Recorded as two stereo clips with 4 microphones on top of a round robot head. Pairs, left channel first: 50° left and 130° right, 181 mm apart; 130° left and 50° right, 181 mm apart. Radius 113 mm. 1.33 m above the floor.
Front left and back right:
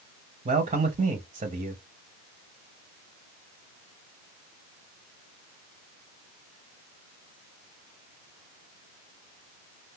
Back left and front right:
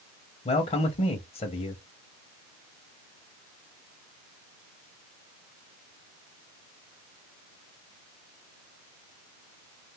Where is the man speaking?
175° right, 0.7 m.